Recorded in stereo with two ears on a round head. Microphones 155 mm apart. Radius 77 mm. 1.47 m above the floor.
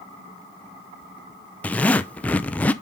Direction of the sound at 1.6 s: 10° left (ahead or behind).